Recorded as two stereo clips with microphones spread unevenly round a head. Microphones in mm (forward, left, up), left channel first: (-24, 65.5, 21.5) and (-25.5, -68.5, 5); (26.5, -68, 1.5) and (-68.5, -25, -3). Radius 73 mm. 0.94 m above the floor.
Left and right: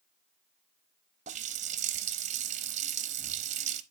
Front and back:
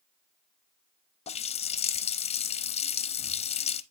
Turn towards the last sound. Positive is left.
turn(degrees=-45)